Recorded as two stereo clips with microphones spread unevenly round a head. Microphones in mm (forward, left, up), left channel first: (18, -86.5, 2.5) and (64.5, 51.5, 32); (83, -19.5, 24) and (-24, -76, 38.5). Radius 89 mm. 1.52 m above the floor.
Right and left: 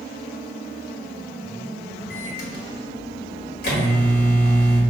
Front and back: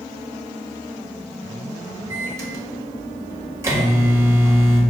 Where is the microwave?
90° right, 1.4 m.